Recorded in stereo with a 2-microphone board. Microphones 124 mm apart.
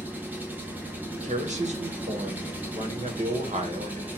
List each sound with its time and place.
0.0 s an engine running: 15° right (ahead or behind), 1.1 m
1.2 s a man speaking: 70° right (ahead or behind), 1.1 m